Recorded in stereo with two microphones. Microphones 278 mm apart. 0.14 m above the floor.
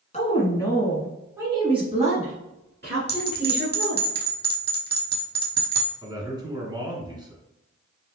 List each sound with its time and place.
0.1 s a woman speaking: 25° left (ahead or behind), 1.7 m; by 4.0 s 50° right (ahead or behind), 3 m
3.1 s a bell: 35° left (ahead or behind), 0.9 m
6.0 s a man speaking: 15° right (ahead or behind), 1.8 m